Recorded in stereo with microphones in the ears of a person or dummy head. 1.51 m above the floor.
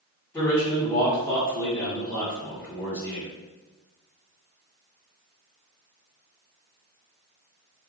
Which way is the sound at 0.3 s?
15° left (ahead or behind).